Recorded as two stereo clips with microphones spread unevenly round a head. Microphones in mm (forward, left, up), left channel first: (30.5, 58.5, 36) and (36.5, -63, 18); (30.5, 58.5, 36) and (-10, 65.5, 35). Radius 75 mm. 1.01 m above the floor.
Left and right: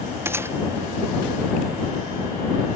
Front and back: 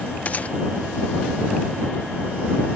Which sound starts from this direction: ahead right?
A gunshot, at 0.2 s.